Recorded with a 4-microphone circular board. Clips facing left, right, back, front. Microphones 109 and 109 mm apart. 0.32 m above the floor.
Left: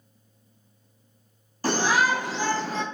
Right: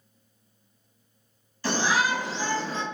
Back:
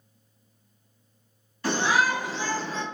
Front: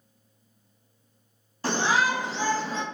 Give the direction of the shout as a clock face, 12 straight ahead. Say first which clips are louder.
Left 2 dB, even; 10 o'clock.